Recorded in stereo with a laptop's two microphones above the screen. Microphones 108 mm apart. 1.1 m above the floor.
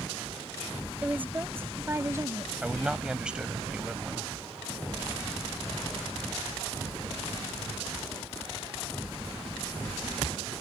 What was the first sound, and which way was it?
A woman speaking, 15° right (ahead or behind).